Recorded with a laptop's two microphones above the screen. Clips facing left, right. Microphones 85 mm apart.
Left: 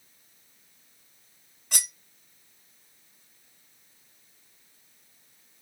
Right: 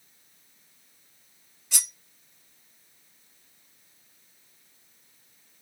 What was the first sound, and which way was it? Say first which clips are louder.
Cutlery clinking: left 2 dB; 50° left (ahead or behind).